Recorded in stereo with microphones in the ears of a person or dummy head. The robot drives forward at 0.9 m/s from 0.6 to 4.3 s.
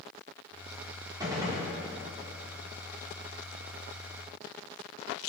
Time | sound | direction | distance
1.2 | a gunshot | 20° right (ahead or behind) | 1.7 m